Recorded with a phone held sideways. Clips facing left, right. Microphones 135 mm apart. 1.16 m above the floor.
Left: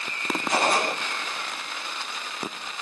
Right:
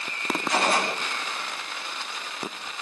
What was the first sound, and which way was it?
A gunshot, 45° left (ahead or behind).